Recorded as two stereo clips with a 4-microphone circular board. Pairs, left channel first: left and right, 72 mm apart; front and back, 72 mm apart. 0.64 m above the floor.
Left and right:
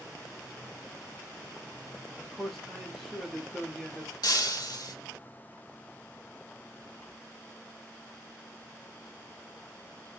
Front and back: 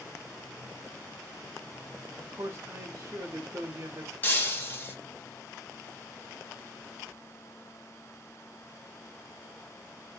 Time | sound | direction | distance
2.2 | a man speaking | 175° left | 0.7 m
4.2 | breaking glass | 65° left | 0.8 m